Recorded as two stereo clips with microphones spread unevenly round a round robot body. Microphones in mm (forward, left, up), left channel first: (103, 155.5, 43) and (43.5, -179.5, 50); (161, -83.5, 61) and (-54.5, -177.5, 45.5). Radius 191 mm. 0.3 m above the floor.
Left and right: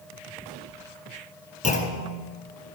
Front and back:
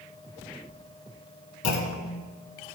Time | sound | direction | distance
1.6 | a clunk | 10° left | 0.9 m